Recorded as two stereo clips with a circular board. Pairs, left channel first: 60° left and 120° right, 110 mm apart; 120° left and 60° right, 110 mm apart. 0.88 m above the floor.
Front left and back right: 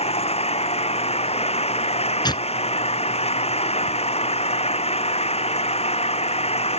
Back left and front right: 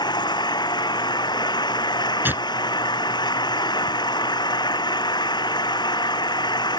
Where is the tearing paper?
10° left.